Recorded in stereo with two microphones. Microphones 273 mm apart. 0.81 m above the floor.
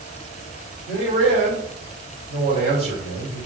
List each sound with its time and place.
0.9 s a man speaking: 25° right (ahead or behind), 3 m